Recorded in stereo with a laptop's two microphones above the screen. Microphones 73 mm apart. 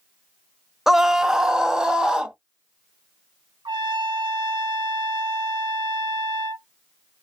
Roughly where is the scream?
Centre.